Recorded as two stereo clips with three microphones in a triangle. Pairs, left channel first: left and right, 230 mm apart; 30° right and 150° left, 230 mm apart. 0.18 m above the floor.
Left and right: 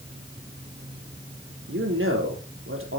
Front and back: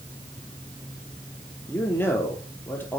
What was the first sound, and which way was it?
A man speaking, 110° right.